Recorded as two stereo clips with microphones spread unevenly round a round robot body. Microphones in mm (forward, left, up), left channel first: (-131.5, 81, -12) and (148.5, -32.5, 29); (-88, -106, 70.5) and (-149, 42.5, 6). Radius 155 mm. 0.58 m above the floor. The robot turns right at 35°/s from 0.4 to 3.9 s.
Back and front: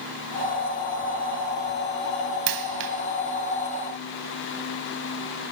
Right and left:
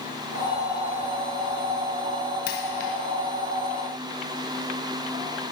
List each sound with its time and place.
2.5 s a dropped coin: 40° right, 1.0 m; by 2.9 s 25° right, 1.0 m